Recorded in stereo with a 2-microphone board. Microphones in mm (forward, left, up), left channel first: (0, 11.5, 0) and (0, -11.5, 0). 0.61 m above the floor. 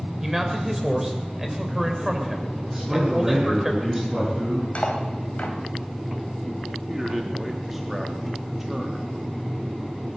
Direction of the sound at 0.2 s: 15° right (ahead or behind).